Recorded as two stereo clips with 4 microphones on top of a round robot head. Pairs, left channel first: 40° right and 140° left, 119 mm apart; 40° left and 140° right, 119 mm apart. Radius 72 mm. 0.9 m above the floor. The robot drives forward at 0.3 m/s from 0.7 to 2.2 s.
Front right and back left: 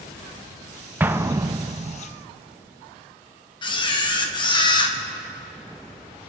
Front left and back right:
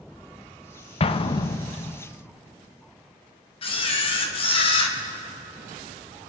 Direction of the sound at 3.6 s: 5° left.